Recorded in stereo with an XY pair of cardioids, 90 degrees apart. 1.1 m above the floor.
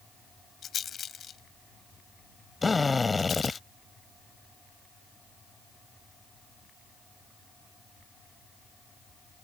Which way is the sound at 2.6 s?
25° left.